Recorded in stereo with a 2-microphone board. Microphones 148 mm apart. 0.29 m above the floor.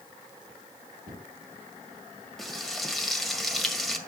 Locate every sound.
1.1 s a cupboard door: 75° right (ahead or behind), 6.5 m
2.4 s frying: centre (ahead or behind), 1.6 m